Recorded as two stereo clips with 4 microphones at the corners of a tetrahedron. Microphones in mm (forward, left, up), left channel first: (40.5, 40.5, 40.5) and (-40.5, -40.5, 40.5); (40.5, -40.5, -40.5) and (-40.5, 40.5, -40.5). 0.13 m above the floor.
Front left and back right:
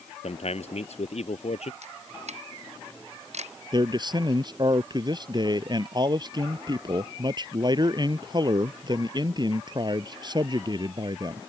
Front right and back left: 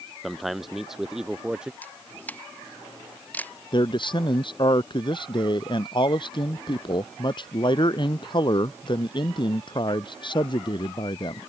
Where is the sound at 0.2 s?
45° left; by 1.7 s 50° left.